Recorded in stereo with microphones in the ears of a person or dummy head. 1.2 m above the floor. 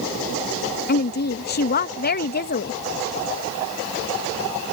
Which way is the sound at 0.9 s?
45° left (ahead or behind).